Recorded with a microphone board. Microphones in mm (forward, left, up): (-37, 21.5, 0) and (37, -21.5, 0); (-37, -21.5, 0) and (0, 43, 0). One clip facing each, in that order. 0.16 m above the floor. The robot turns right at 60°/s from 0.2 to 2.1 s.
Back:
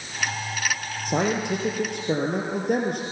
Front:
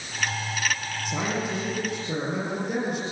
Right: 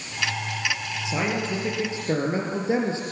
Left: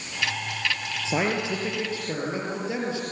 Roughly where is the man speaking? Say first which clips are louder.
Back 5 dB, left 1 dB; behind left.